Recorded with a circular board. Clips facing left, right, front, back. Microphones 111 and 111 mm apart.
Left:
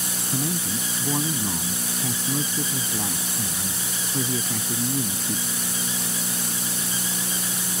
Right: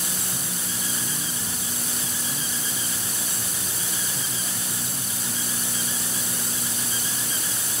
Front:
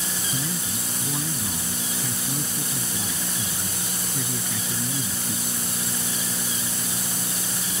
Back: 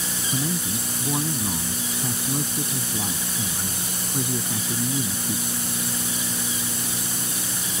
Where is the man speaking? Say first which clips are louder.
Left 7 dB, back 6 dB; 125° left.